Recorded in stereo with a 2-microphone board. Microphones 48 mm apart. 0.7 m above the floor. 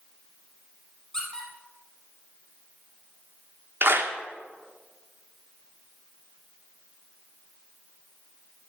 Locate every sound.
1.1 s a squeak: 15° left (ahead or behind), 3.5 m
3.8 s a clap: 55° right (ahead or behind), 1.3 m